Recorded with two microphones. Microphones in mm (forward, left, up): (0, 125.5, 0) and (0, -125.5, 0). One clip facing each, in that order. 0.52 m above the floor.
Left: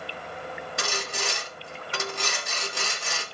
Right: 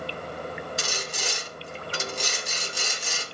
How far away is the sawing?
About 1.6 m.